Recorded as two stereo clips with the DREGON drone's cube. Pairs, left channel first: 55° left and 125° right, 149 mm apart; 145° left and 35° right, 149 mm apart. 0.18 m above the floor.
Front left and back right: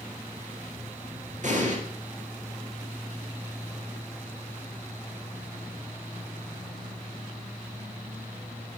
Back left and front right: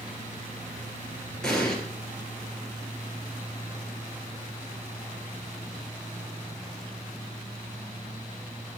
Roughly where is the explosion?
Behind right.